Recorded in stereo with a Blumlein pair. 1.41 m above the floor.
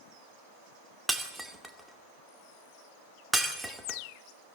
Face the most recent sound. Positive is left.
turn(degrees=-5)